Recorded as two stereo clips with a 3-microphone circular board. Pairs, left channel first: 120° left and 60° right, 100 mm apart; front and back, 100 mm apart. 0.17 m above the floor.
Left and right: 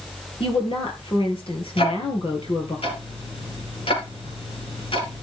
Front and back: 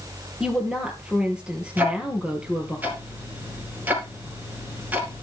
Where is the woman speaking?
100° left, 3.5 m.